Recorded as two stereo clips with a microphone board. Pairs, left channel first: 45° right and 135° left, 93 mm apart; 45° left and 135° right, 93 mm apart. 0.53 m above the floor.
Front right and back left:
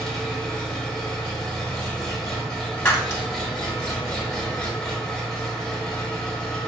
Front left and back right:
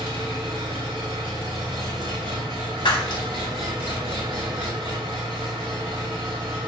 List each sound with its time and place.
0.0 s an engine running: 130° right, 1.4 m
2.9 s breaking glass: 20° left, 0.9 m